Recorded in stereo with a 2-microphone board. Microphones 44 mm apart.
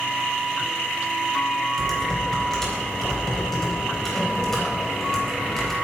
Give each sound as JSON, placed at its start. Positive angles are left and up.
{"t": 1.8, "sound": "typing on a keyboard", "side_deg": 5, "distance_m": 4.0}